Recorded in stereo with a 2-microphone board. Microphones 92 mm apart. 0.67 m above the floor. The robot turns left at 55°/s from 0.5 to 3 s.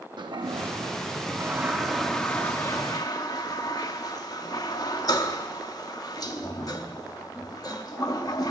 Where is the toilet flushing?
60° right (ahead or behind), 0.6 m; by 8.5 s 45° left (ahead or behind), 0.6 m.